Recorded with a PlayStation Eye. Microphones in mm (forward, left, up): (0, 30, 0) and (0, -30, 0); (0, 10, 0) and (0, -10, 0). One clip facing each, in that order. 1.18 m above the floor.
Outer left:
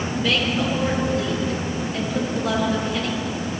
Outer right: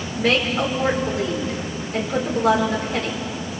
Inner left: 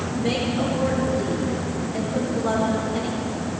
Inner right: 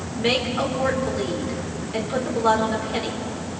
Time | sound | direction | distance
0.2 | a woman speaking | 55° right (ahead or behind) | 4.5 m